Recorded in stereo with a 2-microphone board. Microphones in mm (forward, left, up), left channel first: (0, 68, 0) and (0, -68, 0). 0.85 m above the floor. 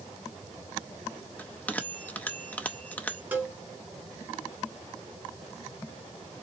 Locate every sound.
1.4 s a bell: 10° left (ahead or behind), 0.6 m
3.3 s a cowbell: 15° right (ahead or behind), 1.5 m